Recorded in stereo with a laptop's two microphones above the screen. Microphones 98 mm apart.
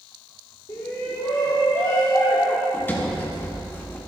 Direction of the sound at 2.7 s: 20° left (ahead or behind).